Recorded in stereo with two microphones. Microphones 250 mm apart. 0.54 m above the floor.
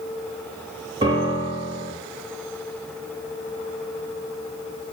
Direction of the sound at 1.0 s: 20° right (ahead or behind).